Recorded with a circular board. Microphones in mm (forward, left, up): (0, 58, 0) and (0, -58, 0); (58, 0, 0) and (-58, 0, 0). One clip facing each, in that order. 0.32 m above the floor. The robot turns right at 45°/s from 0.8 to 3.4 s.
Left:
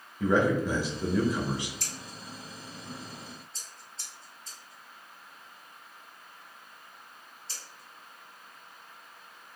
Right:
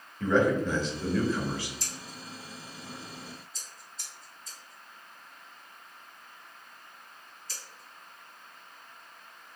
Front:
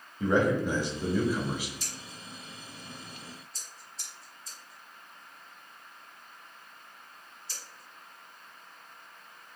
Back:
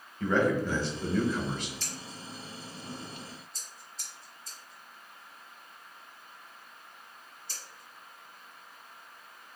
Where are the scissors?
75° left, 1.2 m; by 9.6 s 145° left, 1.2 m.